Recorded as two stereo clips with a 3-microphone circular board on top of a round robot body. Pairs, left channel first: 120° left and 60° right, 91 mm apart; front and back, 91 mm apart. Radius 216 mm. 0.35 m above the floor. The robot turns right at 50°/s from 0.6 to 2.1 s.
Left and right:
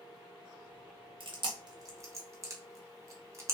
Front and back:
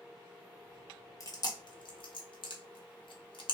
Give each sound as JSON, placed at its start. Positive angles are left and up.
{"t": 1.2, "sound": "chewing", "azimuth_deg": -50, "distance_m": 1.3}